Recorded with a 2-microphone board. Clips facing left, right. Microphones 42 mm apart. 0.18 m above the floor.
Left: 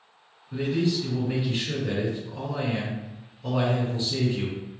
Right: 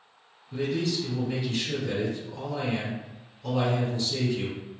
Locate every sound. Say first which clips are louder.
0.5 s a man speaking: left 3 dB; 25° left (ahead or behind), 1.5 m